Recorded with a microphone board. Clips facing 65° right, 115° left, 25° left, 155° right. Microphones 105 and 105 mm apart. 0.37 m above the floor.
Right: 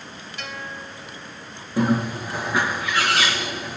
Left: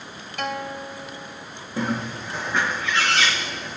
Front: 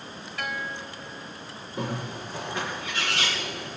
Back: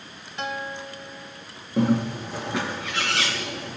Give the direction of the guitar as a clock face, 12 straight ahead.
7 o'clock.